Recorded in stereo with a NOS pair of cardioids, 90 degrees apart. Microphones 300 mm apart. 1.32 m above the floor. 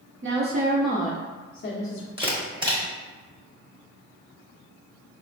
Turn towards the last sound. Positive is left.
turn(degrees=-15)